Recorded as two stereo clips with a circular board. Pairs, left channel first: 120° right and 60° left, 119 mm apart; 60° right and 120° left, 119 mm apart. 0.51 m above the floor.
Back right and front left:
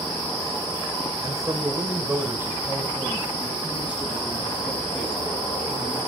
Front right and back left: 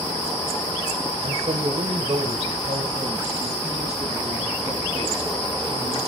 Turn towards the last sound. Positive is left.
turn(degrees=145)